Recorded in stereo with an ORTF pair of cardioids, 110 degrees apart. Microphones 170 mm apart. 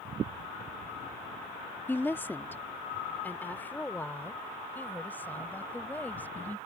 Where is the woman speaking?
15° left; by 6.6 s 10° left.